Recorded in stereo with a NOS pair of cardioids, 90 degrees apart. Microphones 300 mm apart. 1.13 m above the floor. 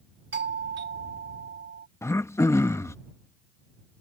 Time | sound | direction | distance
0.3 | a doorbell | 40° right | ?
2.0 | throat clearing | 10° left | ?